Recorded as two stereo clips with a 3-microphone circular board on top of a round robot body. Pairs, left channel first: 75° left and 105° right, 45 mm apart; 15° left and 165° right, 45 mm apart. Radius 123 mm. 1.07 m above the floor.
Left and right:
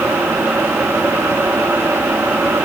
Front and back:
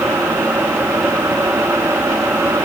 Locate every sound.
Only background noise.